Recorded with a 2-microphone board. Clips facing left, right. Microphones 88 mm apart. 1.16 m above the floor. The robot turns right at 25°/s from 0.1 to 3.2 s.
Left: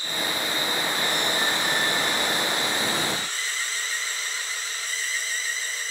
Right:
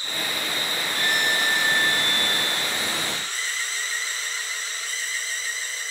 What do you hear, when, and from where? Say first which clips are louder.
0.9 s a violin: right 1 dB; 80° right, 3.5 m; by 3.2 s 25° right, 3.5 m